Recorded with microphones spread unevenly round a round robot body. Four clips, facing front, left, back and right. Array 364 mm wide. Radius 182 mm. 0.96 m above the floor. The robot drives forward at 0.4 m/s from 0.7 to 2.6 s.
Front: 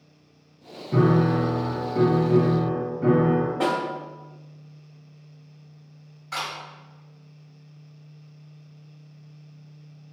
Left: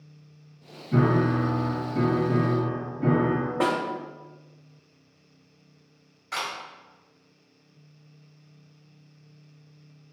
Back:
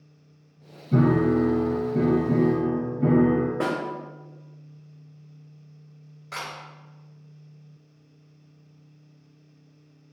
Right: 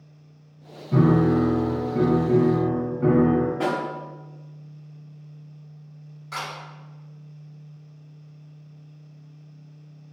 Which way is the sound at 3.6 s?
135° left.